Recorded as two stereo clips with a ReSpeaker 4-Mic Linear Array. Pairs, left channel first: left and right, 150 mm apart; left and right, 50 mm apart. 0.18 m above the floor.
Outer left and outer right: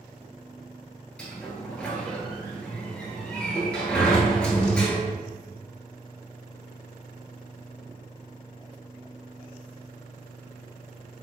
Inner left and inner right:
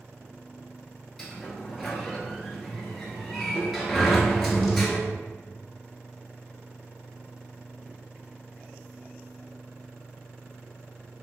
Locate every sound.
1.2 s a sliding door: 5° left (ahead or behind), 0.7 m